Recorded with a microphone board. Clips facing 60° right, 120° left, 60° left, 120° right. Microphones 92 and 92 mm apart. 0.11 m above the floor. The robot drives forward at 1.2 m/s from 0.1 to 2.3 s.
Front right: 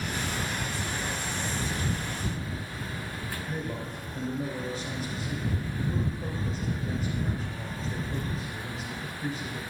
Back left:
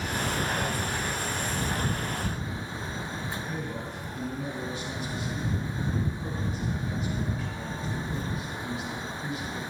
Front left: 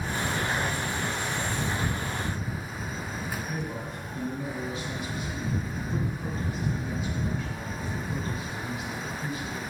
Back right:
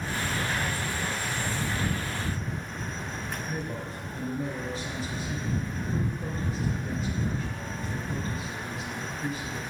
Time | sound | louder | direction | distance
3.5 | a man speaking | even, even | 90° right | 2 m